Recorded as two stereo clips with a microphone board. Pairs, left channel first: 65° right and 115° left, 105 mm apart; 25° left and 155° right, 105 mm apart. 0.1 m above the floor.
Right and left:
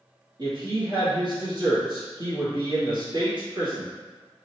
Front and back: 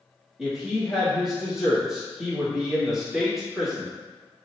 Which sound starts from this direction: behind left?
A woman speaking, at 0.4 s.